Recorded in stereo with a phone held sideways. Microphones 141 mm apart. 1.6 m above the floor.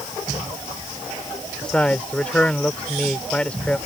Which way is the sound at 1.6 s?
10° left (ahead or behind).